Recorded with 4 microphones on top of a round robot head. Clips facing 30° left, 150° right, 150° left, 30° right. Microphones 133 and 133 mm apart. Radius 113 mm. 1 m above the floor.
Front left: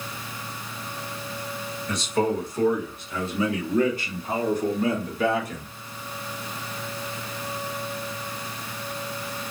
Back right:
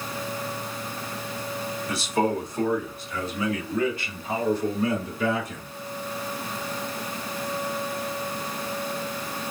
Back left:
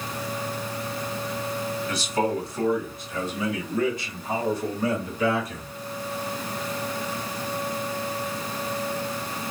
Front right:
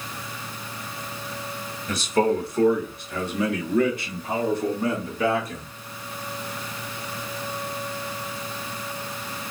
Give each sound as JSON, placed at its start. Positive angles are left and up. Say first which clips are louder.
{"t": 1.9, "sound": "a man speaking", "louder": "front left 1 dB, front right 5 dB", "azimuth_deg": -65, "distance_m": 1.3}